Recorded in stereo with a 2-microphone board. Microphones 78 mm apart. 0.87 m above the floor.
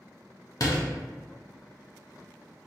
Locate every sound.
0.6 s a door slam: 55° left (ahead or behind), 0.7 m